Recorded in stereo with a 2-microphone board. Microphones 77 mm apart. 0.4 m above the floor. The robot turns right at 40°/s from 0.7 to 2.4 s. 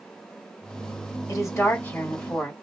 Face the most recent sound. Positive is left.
turn(degrees=170)